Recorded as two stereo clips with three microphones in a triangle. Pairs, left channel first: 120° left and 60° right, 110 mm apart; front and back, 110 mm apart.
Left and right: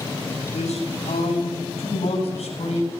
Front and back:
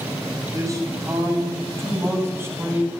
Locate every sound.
0.4 s a man speaking: 120° left, 9 m; by 2.9 s 110° left, 8 m